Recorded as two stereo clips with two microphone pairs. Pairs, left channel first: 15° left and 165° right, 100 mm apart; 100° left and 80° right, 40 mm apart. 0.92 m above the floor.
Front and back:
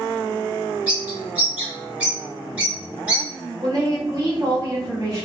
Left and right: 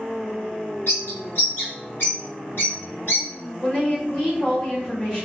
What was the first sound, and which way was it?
A bird, 125° left.